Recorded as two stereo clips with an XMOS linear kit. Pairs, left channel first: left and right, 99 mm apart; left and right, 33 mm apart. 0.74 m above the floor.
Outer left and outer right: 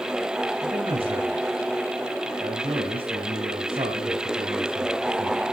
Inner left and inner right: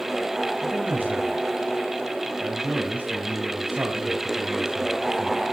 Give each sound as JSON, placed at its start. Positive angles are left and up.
{"t": 0.6, "sound": "a man speaking", "side_deg": -70, "distance_m": 3.5}